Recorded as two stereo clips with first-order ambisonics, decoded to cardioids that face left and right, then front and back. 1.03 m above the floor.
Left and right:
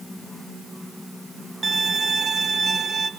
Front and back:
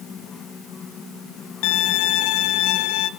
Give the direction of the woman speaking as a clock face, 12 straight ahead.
I don't hear a woman speaking.